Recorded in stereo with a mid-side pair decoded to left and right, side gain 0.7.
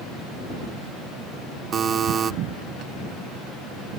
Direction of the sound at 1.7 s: 35° right.